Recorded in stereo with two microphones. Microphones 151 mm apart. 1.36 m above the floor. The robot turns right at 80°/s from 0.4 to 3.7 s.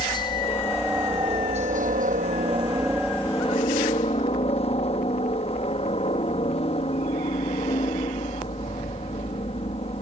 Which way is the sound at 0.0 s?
145° left.